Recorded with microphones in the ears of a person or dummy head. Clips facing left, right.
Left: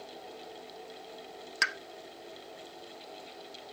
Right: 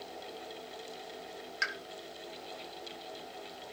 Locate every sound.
1.6 s a pop: 65° left (ahead or behind), 0.5 m